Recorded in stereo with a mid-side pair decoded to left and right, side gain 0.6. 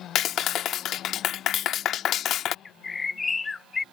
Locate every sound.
0.1 s a clap: 55° left
2.6 s a bird: 25° left